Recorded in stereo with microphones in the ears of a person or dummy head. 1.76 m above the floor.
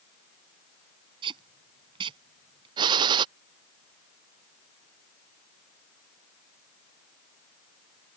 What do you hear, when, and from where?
1.2 s tape being pulled: 30° right (ahead or behind)
2.8 s a gunshot: 30° right (ahead or behind)